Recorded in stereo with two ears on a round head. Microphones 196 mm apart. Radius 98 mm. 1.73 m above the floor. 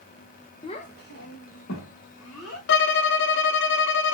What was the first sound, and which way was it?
A child speaking, 20° left (ahead or behind).